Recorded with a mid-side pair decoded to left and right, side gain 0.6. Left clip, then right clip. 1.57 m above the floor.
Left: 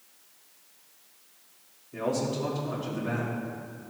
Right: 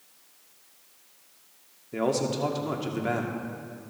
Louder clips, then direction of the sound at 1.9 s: Right 3 dB; 50° right.